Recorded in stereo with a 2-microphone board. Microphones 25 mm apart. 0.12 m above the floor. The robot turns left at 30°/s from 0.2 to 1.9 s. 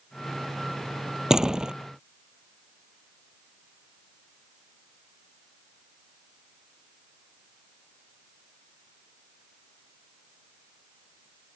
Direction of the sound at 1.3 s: 25° right (ahead or behind).